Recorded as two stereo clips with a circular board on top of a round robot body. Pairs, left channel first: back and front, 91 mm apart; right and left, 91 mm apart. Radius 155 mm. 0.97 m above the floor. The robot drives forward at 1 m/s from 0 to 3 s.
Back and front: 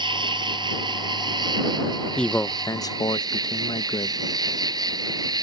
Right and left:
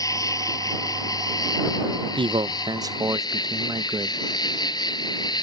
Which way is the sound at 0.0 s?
35° right.